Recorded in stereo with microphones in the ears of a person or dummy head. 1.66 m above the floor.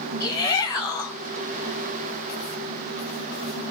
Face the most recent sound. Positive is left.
turn(degrees=20)  # may be behind; listen again after turning